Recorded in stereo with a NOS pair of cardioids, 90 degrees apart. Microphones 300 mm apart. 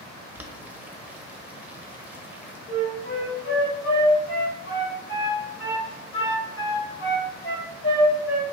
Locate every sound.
0.3 s boiling: 5° right, 0.6 m
2.7 s a flute: 45° left, 1.8 m